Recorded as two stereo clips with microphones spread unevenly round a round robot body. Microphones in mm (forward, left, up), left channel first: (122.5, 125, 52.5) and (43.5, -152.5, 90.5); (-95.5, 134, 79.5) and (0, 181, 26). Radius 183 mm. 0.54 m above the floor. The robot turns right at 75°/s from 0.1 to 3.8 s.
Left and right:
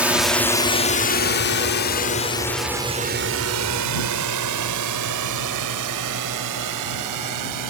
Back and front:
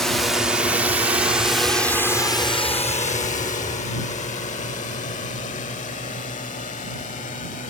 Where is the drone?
10° right; by 7.7 s 120° right.